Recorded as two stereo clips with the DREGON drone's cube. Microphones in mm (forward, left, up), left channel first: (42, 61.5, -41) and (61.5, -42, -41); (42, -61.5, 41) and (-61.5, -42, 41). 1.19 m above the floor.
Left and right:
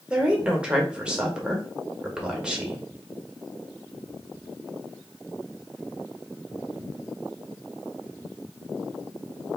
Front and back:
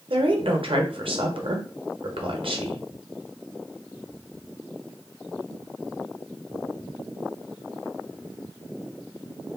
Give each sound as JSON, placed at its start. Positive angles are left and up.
{"t": 0.1, "sound": "a woman speaking", "azimuth_deg": -160, "distance_m": 1.2}